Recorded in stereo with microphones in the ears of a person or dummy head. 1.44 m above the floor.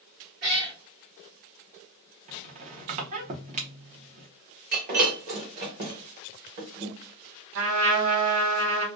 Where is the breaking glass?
40° right (ahead or behind), 1.1 m.